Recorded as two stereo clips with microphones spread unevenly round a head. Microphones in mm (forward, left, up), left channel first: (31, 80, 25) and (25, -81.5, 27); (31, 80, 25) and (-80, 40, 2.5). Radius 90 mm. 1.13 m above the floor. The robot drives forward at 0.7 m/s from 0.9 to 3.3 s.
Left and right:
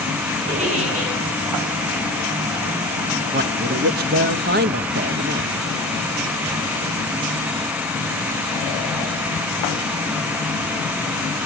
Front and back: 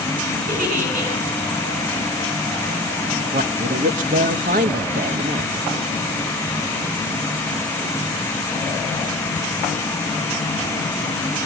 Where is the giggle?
145° right, 8 m.